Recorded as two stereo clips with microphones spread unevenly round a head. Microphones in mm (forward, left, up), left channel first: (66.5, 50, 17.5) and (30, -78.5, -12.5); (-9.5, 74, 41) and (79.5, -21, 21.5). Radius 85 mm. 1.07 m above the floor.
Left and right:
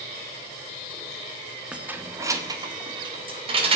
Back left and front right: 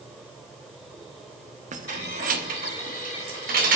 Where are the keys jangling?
20° right, 1.2 m; by 3.8 s 60° right, 2.5 m.